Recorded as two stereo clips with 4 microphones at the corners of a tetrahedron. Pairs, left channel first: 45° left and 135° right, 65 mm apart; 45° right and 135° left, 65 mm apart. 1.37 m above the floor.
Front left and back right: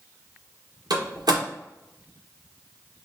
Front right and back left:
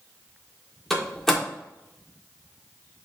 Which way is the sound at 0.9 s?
130° right.